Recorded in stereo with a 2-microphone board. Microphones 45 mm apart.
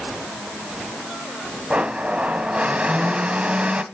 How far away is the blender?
About 0.8 m.